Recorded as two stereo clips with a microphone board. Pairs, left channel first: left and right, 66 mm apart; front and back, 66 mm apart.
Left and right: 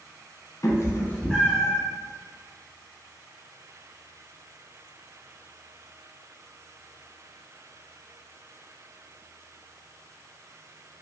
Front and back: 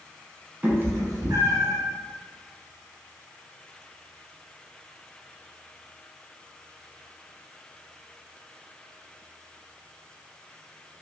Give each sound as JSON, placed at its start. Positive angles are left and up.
{"t": 0.6, "sound": "a cat meowing", "azimuth_deg": 115, "distance_m": 0.7}